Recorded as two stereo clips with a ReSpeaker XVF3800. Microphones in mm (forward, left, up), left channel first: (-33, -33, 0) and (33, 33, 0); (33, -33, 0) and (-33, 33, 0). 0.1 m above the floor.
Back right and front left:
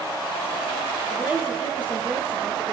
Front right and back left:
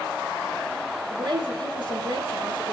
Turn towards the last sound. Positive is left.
turn(degrees=120)